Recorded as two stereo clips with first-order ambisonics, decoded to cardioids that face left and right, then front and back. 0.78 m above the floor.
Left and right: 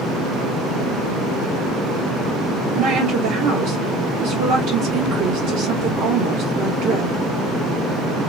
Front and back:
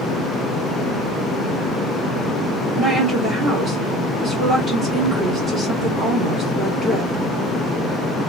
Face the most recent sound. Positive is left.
turn(degrees=-110)